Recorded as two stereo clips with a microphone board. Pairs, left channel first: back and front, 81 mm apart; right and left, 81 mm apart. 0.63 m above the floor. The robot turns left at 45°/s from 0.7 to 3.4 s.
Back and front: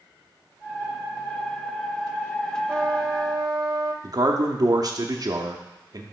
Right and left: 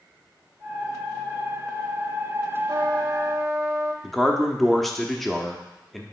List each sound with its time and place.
2.7 s a trumpet: 65° left, 0.8 m; by 3.9 s 30° left, 0.8 m
4.0 s a man speaking: 5° right, 0.8 m